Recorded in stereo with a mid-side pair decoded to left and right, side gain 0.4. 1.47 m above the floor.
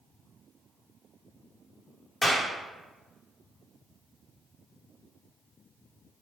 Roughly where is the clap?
Ahead.